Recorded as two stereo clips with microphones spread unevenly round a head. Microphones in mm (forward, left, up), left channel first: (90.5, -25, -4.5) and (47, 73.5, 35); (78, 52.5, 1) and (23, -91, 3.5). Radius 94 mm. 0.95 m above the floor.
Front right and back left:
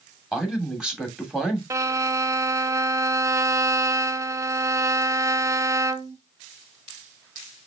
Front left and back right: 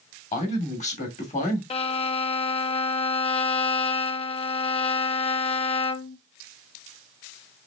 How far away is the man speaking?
About 2.5 m.